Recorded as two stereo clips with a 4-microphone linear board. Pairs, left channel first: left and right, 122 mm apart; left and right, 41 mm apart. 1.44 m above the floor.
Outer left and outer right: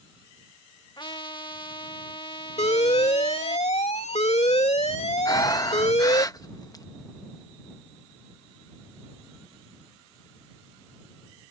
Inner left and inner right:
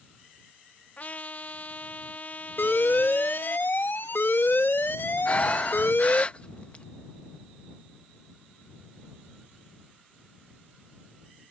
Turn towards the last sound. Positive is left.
turn(degrees=35)  # may be behind; listen again after turning